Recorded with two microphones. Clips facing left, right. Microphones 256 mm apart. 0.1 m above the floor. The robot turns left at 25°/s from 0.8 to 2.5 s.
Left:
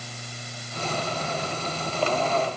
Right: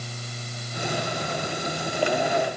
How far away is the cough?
I don't hear a cough.